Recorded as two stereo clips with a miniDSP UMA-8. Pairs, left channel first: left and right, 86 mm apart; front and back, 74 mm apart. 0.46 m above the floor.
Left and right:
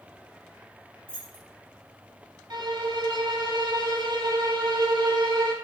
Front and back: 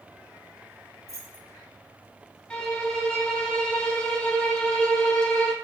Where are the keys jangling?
20° left, 0.9 m.